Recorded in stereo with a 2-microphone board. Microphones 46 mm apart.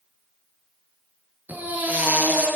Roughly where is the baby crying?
Right.